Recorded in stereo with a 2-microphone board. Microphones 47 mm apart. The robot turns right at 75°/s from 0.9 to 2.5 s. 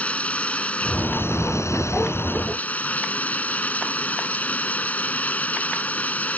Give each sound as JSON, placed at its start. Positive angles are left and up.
{"t": 0.0, "sound": "running water", "azimuth_deg": 30}